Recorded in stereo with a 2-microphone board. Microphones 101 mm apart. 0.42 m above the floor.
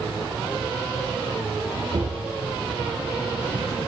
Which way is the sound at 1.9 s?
55° right (ahead or behind).